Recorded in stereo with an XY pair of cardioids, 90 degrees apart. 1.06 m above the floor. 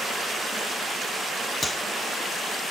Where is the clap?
25° left, 1.9 m.